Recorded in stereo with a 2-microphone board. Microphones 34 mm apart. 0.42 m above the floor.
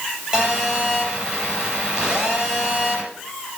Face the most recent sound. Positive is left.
turn(degrees=-20)  # may be behind; listen again after turning